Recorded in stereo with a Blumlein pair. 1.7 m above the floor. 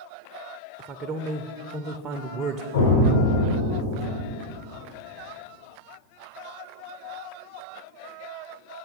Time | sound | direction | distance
0.8 | a man speaking | 30° right | 0.6 m
2.7 | an explosion | 70° left | 3.5 m